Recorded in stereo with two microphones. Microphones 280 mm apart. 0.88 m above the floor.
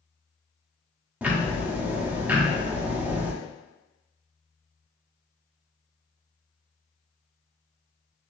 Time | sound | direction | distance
1.2 | ticking | 5° right (ahead or behind) | 0.5 m